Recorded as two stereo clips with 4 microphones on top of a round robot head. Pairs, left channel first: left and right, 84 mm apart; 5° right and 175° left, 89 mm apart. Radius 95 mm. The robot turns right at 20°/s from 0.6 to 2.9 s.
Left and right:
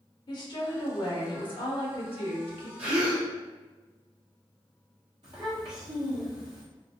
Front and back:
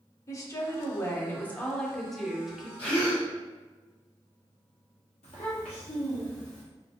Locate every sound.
0.3 s a woman speaking: 50° left, 0.8 m; by 2.7 s 90° left, 0.8 m
2.8 s a gasp: 55° right, 0.9 m
5.2 s a child speaking: 35° right, 0.7 m